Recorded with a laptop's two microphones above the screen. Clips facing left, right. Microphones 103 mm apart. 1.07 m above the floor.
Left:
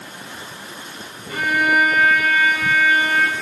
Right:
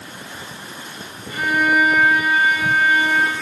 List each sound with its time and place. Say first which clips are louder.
1.3 s a violin: even; 90° left, 3 m